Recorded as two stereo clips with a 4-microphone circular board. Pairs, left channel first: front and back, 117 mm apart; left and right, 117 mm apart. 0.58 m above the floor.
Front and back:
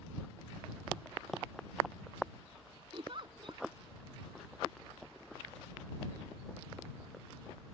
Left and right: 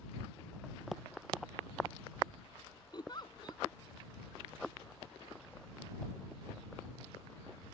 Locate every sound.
2.9 s a giggle: 140° left